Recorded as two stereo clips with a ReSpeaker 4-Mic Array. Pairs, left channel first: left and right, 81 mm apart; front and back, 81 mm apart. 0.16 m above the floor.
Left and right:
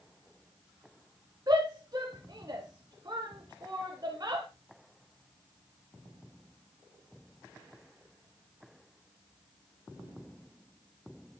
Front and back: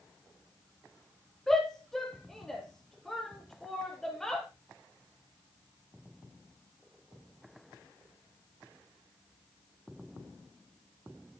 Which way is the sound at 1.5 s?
80° right.